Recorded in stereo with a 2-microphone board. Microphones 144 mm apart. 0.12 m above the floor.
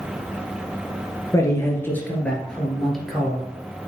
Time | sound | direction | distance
1.3 | a man speaking | 20° left (ahead or behind) | 2 m